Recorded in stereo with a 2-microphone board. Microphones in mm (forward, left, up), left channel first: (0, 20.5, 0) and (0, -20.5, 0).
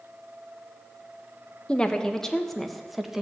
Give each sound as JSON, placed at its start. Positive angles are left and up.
{"t": 1.7, "sound": "a woman speaking", "side_deg": 25, "distance_m": 1.2}